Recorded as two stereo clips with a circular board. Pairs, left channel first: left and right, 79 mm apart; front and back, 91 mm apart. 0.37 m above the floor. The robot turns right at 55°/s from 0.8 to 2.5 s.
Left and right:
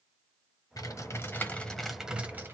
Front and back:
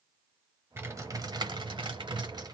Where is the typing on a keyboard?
120° left, 1.0 m; by 2.5 s 145° right, 1.0 m.